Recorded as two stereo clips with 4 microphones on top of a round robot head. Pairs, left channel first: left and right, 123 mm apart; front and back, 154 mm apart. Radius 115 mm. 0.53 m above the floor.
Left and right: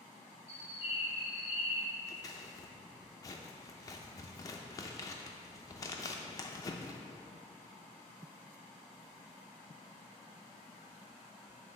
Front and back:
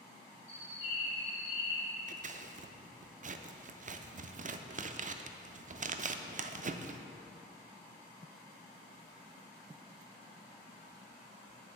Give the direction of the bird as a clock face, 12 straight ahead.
10 o'clock.